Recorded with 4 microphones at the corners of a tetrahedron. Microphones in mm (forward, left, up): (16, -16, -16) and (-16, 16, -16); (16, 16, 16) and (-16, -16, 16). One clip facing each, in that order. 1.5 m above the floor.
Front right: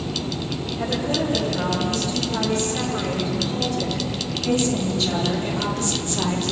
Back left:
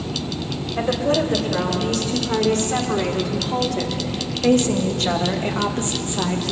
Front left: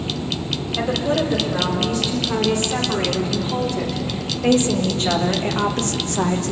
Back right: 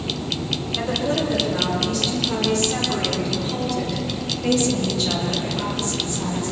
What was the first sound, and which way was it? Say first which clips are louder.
A woman speaking: back left 5 dB, front left 3 dB; 130° left.